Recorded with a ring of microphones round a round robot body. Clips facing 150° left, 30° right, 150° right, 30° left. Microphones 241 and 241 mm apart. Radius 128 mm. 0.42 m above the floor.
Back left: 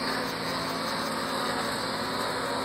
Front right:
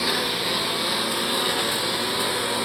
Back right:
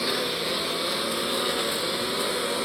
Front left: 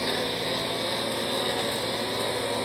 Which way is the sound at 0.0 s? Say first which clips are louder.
Front right 5 dB, even; 75° right.